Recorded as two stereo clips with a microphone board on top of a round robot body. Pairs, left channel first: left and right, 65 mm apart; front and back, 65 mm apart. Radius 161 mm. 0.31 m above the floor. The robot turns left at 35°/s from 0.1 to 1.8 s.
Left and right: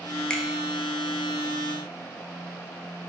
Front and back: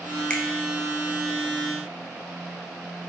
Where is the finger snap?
40° left, 0.9 m; by 0.4 s 35° left, 0.9 m.